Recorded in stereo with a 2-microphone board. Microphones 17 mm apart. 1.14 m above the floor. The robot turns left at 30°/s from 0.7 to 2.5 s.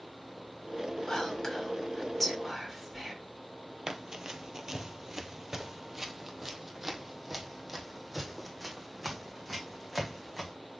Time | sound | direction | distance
1.1 | whispering | 45° left (ahead or behind) | 4 m
3.9 | running footsteps | 35° right (ahead or behind) | 1.3 m